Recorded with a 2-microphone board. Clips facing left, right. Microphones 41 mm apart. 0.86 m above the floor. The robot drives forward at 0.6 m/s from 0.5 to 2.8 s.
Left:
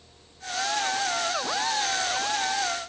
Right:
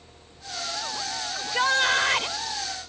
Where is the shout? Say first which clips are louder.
Right 4 dB; 75° right (ahead or behind); by 2.4 s 60° right (ahead or behind).